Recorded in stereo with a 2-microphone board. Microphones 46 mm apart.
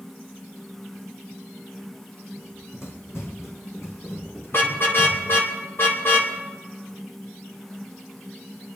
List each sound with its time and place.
2.4 s running footsteps: 70° left (ahead or behind), 4 m; by 5.4 s 65° left (ahead or behind), 5.5 m
4.5 s a car horn: 50° left (ahead or behind), 2.5 m